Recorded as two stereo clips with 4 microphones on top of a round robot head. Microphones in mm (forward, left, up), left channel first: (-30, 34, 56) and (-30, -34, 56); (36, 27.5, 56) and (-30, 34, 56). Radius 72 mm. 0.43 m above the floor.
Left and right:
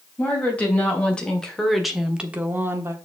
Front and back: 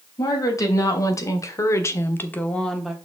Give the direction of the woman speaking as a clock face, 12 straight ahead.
11 o'clock.